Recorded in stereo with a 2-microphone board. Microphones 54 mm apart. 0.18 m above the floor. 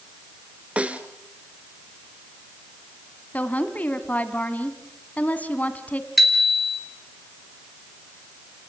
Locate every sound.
0.8 s a snare drum: 25° right (ahead or behind), 1.4 m
3.3 s a woman speaking: 30° left (ahead or behind), 1.6 m
6.2 s a bicycle bell: 5° right (ahead or behind), 2.5 m